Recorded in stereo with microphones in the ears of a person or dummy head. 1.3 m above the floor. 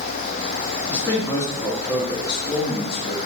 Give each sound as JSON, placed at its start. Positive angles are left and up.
{"t": 0.9, "sound": "a man speaking", "side_deg": 10, "distance_m": 2.5}